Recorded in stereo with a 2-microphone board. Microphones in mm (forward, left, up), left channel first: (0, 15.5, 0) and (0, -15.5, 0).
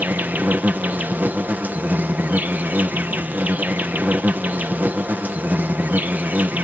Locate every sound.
0.0 s an insect: 80° right